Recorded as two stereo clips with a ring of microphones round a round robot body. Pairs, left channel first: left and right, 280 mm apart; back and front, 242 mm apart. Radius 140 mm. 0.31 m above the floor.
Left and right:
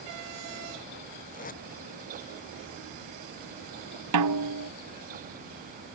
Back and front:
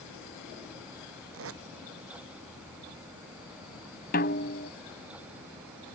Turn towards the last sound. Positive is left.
turn(degrees=-120)